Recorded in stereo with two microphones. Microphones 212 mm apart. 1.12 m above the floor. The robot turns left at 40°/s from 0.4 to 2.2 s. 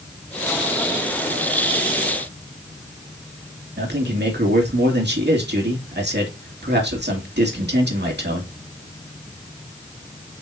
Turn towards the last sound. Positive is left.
turn(degrees=-55)  # may be behind; listen again after turning